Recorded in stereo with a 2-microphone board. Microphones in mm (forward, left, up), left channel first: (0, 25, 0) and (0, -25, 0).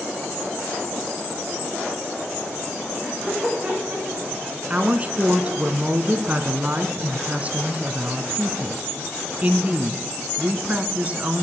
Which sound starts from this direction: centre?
Laughter, at 3.0 s.